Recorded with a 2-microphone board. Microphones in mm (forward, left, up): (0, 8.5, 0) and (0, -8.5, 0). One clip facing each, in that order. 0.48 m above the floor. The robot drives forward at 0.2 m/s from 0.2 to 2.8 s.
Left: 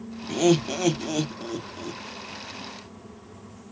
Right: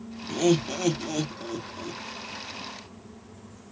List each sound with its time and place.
0.3 s laughter: 15° left (ahead or behind), 0.7 m